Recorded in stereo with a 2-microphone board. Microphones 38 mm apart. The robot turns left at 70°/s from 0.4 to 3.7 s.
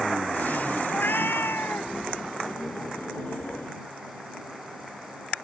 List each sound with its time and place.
0.9 s a cat meowing: 125° left; by 1.9 s 55° left